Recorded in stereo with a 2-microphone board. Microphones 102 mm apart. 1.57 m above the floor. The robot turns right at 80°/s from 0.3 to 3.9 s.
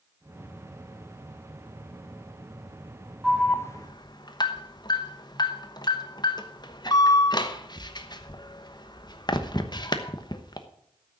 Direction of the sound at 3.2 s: Centre (ahead or behind).